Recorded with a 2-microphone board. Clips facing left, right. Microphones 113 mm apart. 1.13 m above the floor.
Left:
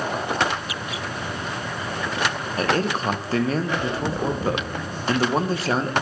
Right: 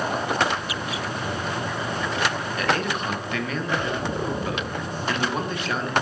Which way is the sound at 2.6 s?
35° left (ahead or behind).